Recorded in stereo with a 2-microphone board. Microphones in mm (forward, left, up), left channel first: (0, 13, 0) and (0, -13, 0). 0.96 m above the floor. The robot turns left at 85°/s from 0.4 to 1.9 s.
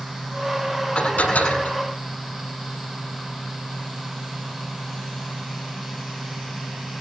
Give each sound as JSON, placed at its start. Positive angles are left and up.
{"t": 0.9, "sound": "dishes clattering", "azimuth_deg": 135, "distance_m": 7.5}